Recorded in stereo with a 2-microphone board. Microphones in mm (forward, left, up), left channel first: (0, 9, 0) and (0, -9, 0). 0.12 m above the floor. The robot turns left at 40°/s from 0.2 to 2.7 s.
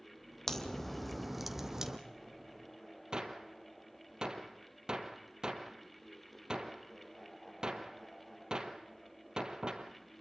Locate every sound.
0.5 s a crack: 30° left, 2 m; by 2.0 s 30° right, 2 m
3.1 s a gunshot: 40° right (ahead or behind), 2 m